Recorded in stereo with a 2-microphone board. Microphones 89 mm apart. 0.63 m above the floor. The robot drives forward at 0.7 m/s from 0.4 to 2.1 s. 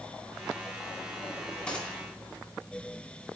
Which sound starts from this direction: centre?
A gunshot, at 1.7 s.